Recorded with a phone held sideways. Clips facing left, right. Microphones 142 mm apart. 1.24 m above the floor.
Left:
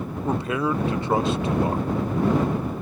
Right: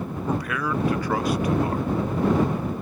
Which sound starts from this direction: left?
A man speaking, at 0.2 s.